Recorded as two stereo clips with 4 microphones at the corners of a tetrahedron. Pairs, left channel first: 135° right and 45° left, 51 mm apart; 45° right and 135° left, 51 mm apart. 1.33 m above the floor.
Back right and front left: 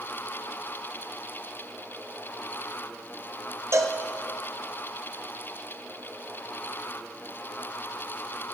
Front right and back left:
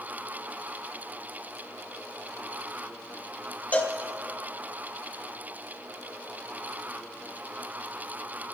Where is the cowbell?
15° left, 0.7 m.